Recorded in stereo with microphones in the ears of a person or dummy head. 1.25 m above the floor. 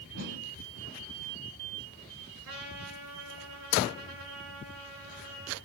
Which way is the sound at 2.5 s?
70° right (ahead or behind).